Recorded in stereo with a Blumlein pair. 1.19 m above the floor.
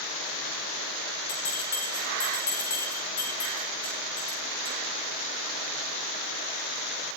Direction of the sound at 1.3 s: 70° left.